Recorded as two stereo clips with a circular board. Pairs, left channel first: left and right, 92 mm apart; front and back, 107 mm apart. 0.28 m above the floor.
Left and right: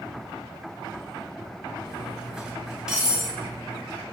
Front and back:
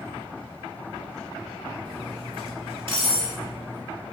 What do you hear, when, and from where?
1.9 s cutlery clinking: 170° right, 0.7 m